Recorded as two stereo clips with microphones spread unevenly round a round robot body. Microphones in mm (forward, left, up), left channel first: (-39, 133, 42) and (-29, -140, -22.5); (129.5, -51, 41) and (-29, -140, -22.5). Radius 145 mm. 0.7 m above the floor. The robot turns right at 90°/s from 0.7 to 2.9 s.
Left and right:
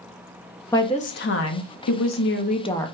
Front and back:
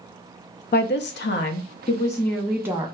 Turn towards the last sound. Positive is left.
turn(degrees=-165)